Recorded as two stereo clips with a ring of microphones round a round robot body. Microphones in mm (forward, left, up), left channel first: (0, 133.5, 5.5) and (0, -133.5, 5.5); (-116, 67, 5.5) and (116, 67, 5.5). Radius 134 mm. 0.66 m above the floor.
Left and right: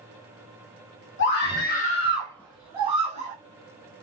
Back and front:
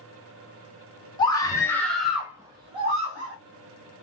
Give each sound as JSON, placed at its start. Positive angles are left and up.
{"t": 1.2, "sound": "a scream", "azimuth_deg": 115, "distance_m": 1.6}